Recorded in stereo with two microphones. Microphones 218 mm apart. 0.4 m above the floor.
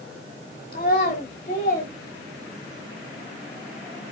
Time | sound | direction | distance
0.7 | a child speaking | 45° left (ahead or behind) | 0.9 m